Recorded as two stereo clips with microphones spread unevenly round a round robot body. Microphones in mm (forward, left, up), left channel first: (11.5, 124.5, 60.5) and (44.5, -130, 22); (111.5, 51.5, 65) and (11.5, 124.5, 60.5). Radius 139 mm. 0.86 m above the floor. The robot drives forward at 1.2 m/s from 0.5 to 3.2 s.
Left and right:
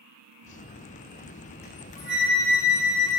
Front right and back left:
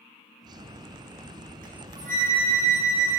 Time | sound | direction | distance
1.6 | a flute | 150° left | 9.5 m